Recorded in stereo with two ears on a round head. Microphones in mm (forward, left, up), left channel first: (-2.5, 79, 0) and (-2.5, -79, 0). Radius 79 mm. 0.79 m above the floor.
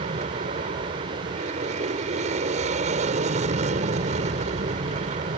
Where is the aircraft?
40° right (ahead or behind).